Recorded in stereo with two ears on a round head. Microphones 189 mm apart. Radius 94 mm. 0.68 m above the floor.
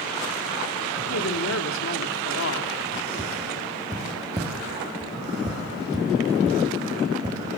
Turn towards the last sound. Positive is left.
turn(degrees=-20)  # may be behind; listen again after turning